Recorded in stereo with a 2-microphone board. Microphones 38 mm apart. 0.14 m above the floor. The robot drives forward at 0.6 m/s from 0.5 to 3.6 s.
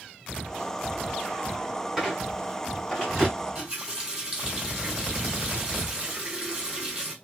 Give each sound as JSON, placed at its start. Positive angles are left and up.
{"t": 2.0, "sound": "a squeak", "side_deg": -5, "distance_m": 2.0}
{"t": 3.4, "sound": "a running tap", "side_deg": -15, "distance_m": 2.5}